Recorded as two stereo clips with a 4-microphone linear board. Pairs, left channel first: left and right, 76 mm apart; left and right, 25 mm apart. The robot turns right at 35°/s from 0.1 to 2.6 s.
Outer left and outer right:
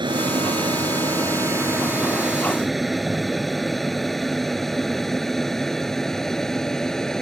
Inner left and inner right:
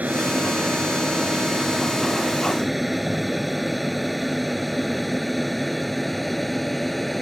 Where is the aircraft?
75° right (ahead or behind); by 7.2 s 5° left (ahead or behind).